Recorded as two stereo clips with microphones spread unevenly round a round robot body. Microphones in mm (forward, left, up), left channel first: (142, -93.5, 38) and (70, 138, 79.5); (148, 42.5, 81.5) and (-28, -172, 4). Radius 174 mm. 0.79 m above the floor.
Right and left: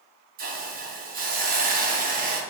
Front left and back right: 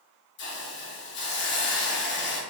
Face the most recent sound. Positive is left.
turn(degrees=85)